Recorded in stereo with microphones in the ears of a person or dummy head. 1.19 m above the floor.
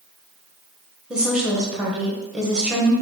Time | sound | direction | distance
1.1 | a woman speaking | 5° right (ahead or behind) | 0.9 m